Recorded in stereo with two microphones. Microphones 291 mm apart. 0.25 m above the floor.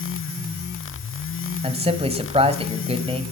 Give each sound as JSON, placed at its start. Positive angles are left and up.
{"t": 1.6, "sound": "a man speaking", "side_deg": -20, "distance_m": 1.1}